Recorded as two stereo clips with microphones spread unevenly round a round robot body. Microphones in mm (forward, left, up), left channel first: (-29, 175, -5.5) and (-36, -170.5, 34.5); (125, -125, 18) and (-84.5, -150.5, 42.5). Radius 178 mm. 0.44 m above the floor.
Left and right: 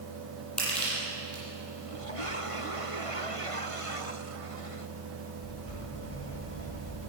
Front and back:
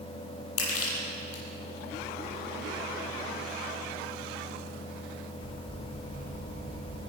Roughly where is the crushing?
Ahead.